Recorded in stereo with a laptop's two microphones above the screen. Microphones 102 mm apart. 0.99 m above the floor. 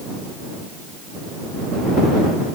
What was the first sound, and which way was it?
Only background noise.